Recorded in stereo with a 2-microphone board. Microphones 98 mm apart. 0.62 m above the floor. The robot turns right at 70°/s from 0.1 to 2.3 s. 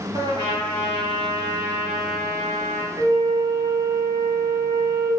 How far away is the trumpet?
About 0.8 m.